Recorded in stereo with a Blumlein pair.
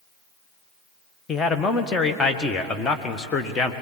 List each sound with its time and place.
1.3 s a man speaking: 15° left, 1.6 m